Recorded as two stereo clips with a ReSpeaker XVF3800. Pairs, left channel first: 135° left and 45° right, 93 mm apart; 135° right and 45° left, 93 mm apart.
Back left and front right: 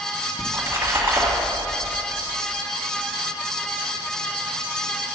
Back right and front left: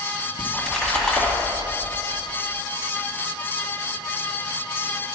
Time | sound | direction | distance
0.4 | a splash | 60° right | 1.6 m